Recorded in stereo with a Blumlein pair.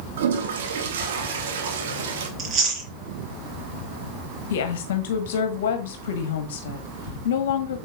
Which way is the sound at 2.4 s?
25° right.